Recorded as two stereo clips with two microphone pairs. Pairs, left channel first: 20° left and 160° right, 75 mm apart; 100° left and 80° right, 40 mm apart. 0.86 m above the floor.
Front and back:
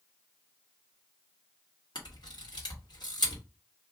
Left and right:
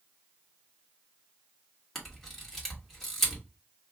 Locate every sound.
1.9 s a camera shutter: 15° left, 1.6 m